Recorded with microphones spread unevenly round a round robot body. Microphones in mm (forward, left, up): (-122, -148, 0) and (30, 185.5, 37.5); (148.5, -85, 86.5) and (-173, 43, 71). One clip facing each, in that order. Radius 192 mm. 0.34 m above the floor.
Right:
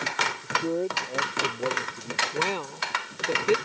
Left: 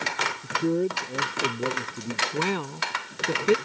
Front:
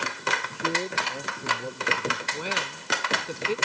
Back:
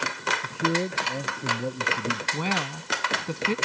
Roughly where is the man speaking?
Behind left.